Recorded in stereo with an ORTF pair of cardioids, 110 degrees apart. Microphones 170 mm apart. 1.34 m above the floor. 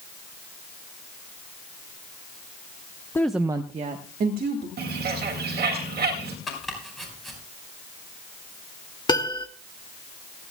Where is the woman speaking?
15° left, 0.8 m; by 4.7 s 60° right, 2 m.